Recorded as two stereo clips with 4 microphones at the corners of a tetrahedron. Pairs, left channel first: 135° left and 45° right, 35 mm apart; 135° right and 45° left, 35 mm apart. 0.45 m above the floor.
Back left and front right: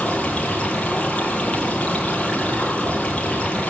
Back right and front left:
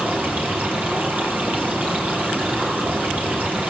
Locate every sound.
0.0 s running water: 80° left, 9 m